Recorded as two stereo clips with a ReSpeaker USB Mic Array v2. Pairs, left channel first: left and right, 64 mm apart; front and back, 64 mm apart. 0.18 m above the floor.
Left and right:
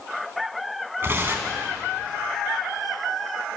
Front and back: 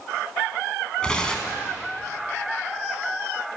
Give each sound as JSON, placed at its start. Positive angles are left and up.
{"t": 1.0, "sound": "tearing paper", "azimuth_deg": -70, "distance_m": 0.8}